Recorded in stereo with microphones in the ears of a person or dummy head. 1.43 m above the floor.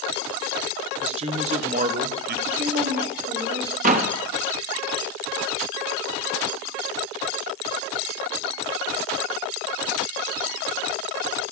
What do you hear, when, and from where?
1.0 s a man speaking: 40° right (ahead or behind), 1.3 m; by 2.4 s 55° right (ahead or behind), 0.7 m
2.5 s a woman speaking: 60° right (ahead or behind), 3.5 m
3.8 s a door slam: 50° right (ahead or behind), 1.1 m